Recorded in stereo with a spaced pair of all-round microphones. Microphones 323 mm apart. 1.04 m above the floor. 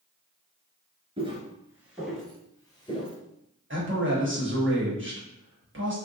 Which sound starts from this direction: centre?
Footsteps, at 1.2 s.